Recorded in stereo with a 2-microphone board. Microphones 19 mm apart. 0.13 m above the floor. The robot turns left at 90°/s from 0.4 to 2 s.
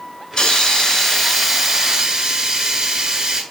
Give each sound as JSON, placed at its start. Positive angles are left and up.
{"t": 0.3, "sound": "a hiss", "azimuth_deg": 95, "distance_m": 0.7}